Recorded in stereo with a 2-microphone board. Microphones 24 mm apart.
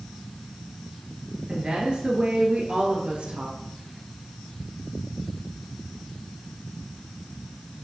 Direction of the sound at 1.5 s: 45° right (ahead or behind).